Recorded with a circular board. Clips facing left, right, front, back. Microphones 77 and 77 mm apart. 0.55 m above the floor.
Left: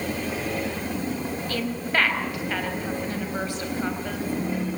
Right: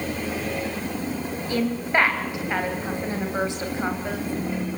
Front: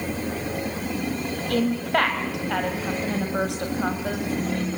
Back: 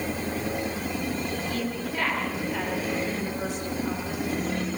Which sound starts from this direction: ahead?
A woman speaking, at 1.5 s.